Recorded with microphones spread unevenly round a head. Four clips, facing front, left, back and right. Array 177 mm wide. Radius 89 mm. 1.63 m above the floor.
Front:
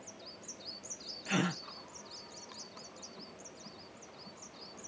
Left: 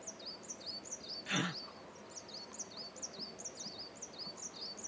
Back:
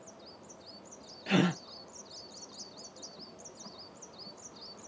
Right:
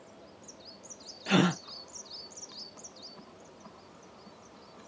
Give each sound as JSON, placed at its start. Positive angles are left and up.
{"t": 1.3, "sound": "a gasp", "azimuth_deg": -110}